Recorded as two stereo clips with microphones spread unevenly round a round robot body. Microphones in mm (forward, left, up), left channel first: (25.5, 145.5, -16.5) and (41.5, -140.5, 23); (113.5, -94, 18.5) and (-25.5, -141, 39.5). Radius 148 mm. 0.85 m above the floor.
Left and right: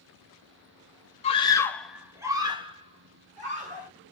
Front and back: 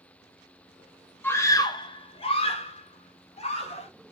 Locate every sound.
1.2 s a scream: 70° left, 0.8 m; by 3.9 s 20° right, 1.9 m